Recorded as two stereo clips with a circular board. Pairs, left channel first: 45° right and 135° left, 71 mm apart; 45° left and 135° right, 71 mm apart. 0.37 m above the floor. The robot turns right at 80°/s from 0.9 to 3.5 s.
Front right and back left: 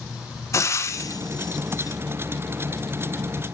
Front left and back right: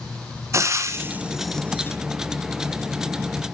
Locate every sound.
0.5 s frying: 90° right, 0.7 m; by 2.0 s 5° right, 0.7 m